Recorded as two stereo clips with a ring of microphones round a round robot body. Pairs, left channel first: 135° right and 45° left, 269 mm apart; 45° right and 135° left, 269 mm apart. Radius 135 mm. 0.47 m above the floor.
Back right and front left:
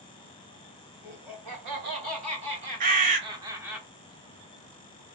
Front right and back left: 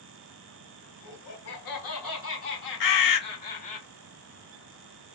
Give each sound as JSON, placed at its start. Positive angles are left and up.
{"t": 1.0, "sound": "laughter", "azimuth_deg": -15, "distance_m": 2.0}
{"t": 2.8, "sound": "a bird", "azimuth_deg": -20, "distance_m": 0.6}